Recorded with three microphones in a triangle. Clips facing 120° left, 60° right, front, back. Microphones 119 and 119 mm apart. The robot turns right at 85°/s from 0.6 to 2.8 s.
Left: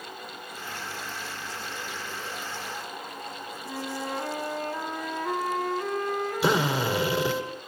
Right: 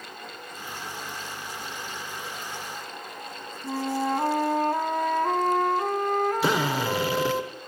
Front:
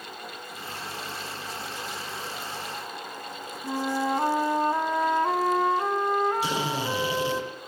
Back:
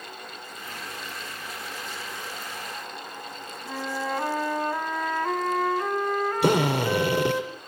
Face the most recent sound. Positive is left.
turn(degrees=-150)